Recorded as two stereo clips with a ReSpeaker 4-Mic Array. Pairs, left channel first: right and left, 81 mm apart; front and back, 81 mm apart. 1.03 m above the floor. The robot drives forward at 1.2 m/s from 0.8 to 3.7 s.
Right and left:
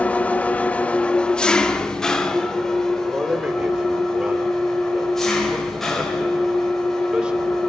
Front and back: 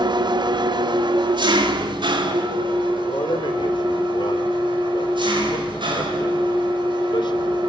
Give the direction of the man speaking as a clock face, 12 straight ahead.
12 o'clock.